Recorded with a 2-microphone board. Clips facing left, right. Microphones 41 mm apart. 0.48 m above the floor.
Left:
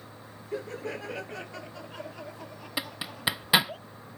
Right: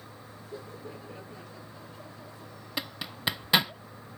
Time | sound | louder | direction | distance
0.5 | laughter | left 8 dB | 85° left | ?
2.8 | a zipper | left 1 dB | 10° left (ahead or behind) | ?